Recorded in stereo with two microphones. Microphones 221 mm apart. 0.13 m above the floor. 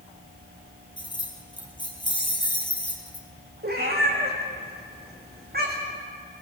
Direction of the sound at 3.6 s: 45° right (ahead or behind).